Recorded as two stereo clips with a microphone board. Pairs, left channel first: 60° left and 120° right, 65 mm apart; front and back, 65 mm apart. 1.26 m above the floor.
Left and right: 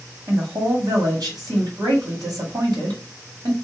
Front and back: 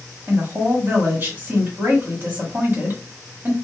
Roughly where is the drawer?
I don't hear a drawer.